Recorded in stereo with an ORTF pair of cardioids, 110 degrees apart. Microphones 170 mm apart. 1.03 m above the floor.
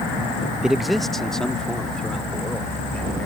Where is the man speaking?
5° right; by 3.3 s 5° left.